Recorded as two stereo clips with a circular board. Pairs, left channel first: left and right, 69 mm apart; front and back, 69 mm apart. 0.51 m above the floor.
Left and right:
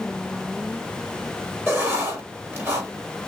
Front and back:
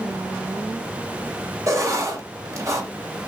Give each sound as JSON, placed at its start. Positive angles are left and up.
{"t": 1.7, "sound": "writing", "azimuth_deg": -145, "distance_m": 1.5}